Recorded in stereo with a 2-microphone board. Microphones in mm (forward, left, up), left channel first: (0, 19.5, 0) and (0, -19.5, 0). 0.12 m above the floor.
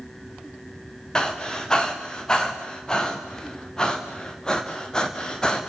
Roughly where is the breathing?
Centre.